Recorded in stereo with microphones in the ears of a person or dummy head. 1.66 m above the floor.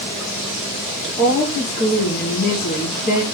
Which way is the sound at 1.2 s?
55° left (ahead or behind).